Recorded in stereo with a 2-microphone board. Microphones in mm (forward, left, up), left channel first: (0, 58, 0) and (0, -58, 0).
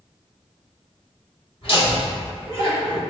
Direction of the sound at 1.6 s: 55° left (ahead or behind).